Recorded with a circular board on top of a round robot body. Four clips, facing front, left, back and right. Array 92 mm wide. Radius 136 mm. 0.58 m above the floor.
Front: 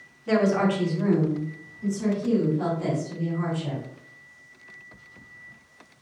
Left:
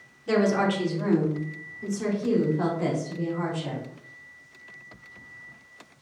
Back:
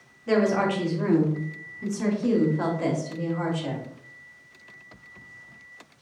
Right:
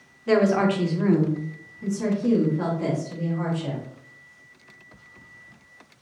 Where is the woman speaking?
85° right, 1.5 m; by 3.8 s straight behind, 2.5 m.